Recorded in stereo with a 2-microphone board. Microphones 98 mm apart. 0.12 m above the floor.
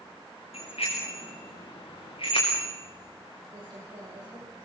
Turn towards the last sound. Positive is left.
turn(degrees=-40)  # may be behind; listen again after turning